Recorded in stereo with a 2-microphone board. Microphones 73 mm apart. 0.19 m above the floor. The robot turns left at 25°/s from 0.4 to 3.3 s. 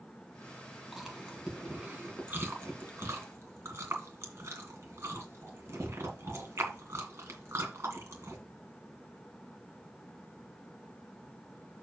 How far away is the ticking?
No ticking in this recording.